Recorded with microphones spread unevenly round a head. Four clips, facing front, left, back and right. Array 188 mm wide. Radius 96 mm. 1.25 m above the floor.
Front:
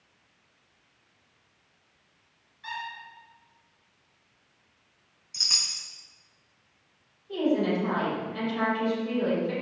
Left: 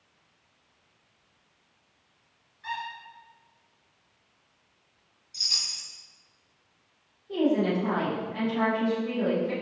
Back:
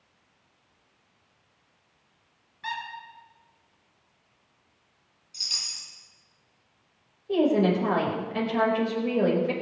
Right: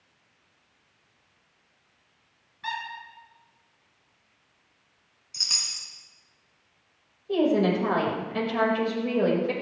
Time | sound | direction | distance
2.6 | a squeak | 135° right | 8 m
5.3 | a chime | 40° right | 4 m
7.3 | a woman speaking | 135° right | 5.5 m